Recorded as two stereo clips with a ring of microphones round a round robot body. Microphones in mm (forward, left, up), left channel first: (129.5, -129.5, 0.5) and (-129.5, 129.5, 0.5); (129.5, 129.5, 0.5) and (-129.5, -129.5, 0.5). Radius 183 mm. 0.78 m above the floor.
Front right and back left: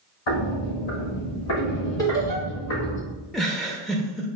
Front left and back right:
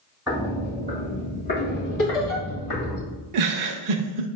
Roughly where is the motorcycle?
I don't hear a motorcycle.